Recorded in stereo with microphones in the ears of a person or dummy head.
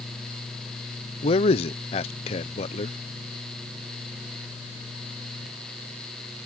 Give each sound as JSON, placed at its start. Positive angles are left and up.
{"t": 1.2, "sound": "a man speaking", "side_deg": 35}